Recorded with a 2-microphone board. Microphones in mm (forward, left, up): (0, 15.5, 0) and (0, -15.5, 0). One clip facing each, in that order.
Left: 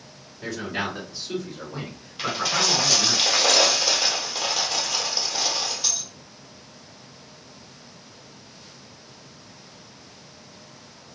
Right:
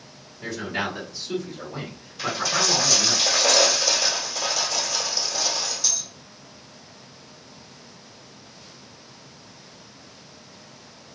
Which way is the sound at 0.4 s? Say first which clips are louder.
Right 1 dB; 5° left (ahead or behind).